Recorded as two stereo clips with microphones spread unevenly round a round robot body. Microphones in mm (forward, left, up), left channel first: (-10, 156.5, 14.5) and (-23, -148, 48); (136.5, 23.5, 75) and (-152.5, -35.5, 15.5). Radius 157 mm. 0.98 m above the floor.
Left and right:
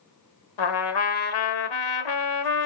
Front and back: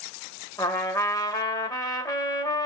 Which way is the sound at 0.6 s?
85° left.